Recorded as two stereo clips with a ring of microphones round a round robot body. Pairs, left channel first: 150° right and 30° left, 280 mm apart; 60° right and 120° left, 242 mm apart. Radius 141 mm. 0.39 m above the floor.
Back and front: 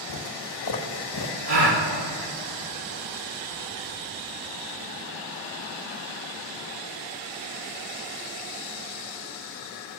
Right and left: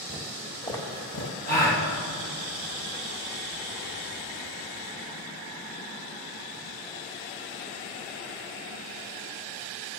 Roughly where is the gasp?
Ahead.